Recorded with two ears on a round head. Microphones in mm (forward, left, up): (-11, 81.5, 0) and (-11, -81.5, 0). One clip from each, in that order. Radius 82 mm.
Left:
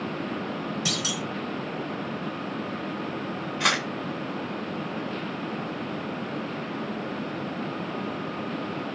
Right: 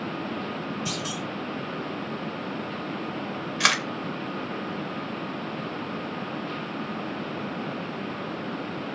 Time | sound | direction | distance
0.8 | a clunk | 70° left (ahead or behind) | 1.1 m
3.6 | a camera shutter | 60° right (ahead or behind) | 0.8 m